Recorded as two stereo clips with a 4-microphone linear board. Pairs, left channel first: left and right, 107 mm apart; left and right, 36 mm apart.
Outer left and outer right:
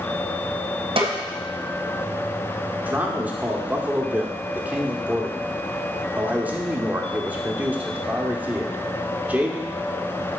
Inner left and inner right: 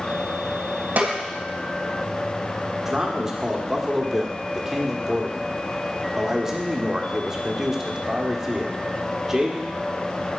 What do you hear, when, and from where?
1.0 s a snare drum: 60° right (ahead or behind), 1.8 m
2.8 s a man speaking: 15° right (ahead or behind), 1.2 m